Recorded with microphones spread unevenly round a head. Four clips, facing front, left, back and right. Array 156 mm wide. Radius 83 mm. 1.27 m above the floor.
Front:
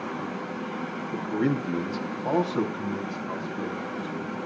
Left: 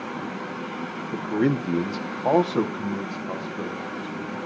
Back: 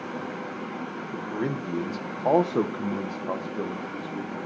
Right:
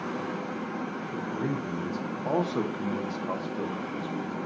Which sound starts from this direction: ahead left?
A man speaking, at 1.1 s.